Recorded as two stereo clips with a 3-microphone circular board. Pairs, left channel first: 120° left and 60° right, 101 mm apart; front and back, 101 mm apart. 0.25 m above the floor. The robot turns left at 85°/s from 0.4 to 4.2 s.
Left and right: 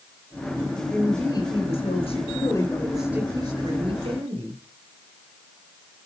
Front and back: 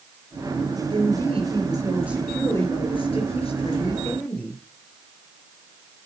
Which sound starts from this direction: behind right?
A woman speaking, at 0.9 s.